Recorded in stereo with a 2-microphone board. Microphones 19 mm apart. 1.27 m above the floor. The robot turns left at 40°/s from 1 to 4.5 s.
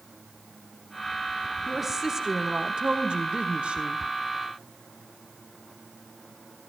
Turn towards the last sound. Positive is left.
turn(degrees=-115)